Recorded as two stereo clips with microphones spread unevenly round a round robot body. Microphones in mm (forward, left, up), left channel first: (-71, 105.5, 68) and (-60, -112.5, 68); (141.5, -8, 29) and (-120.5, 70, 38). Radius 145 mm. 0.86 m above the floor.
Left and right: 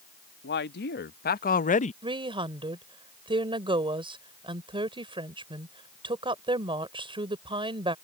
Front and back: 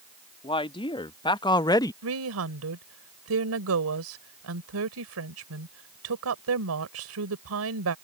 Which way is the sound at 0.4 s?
55° left.